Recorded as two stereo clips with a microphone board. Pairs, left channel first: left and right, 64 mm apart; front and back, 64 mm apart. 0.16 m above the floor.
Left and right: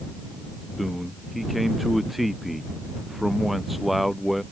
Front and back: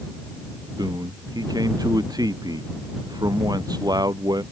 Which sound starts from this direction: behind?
A man speaking, at 0.8 s.